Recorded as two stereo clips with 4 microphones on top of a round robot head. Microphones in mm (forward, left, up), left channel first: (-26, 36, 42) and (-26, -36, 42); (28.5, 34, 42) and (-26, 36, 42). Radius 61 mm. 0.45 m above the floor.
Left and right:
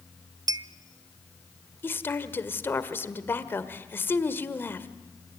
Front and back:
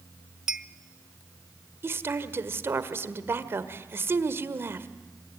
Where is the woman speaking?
145° left, 1.6 m.